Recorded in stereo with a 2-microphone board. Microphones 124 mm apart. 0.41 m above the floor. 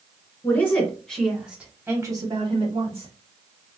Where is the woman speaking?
15° left (ahead or behind), 1.7 m; by 3.1 s 50° right (ahead or behind), 1.4 m.